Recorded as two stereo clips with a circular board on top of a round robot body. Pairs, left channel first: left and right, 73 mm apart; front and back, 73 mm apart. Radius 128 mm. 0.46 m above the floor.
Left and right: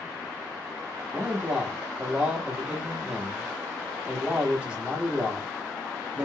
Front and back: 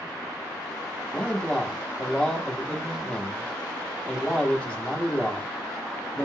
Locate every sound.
1.1 s a man speaking: 45° right, 1.2 m